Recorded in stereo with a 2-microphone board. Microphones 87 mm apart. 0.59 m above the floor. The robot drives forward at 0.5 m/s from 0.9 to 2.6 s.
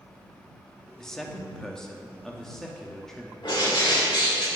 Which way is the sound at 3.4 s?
65° left (ahead or behind).